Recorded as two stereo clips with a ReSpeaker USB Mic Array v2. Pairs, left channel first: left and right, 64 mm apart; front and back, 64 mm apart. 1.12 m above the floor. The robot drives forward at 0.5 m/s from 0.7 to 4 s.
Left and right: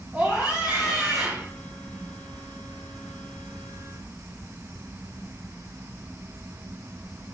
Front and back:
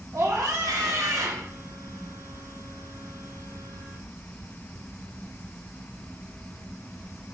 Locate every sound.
0.1 s a scream: 140° right, 3 m; by 1.5 s 145° right, 3.5 m